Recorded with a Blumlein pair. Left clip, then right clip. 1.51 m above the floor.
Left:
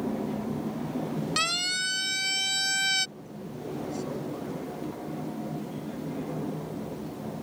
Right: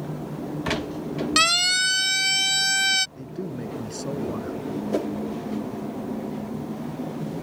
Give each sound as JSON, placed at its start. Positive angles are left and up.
{"t": 1.4, "sound": "a siren", "azimuth_deg": -65}
{"t": 3.2, "sound": "a man speaking", "azimuth_deg": -60}
{"t": 4.9, "sound": "a whoosh", "azimuth_deg": -45}